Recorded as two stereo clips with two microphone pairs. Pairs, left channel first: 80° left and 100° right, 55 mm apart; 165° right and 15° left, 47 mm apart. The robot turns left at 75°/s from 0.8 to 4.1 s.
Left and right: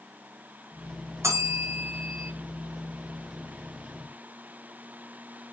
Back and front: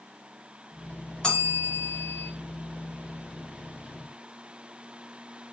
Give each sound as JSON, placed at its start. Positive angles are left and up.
{"t": 1.2, "sound": "a bell", "azimuth_deg": -100, "distance_m": 1.3}